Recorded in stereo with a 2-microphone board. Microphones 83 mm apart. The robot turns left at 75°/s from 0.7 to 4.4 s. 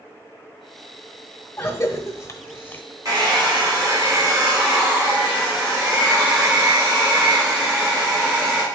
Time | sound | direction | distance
1.6 | a cough | 30° left (ahead or behind) | 1.0 m
3.0 | a hair dryer | 50° right | 3.5 m